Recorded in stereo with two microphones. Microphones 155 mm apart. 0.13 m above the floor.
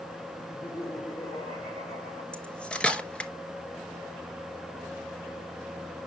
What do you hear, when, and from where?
0.4 s laughter: 50° left (ahead or behind), 4.5 m
2.3 s cutlery clinking: 10° left (ahead or behind), 1.0 m